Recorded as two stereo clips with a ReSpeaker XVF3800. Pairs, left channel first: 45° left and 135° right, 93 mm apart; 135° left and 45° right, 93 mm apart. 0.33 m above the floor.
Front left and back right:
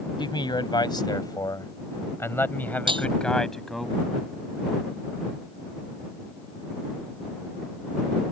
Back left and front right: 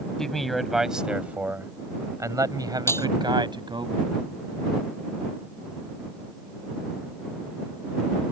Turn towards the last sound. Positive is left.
turn(degrees=-160)